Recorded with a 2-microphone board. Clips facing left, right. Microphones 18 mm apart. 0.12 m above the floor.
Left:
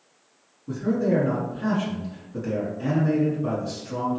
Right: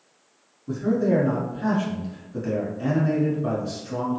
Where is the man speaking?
Centre (ahead or behind), 1.3 m.